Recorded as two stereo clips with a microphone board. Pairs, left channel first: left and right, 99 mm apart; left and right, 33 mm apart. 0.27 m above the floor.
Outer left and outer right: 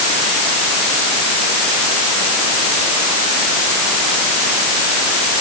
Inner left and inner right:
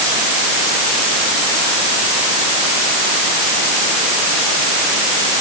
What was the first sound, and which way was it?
Only background noise.